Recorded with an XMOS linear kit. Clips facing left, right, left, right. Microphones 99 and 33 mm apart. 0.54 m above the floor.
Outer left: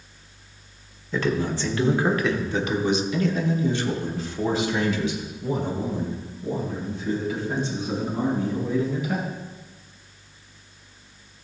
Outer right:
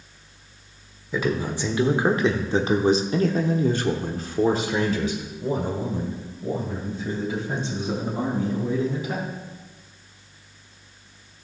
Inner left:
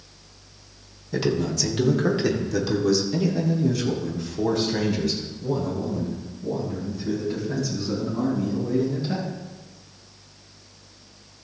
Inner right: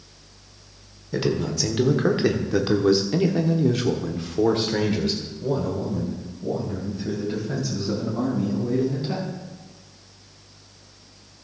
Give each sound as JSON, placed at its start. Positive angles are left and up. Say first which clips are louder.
{"t": 1.1, "sound": "a man speaking", "louder": "outer left 1 dB, even", "side_deg": -10, "distance_m": 1.5}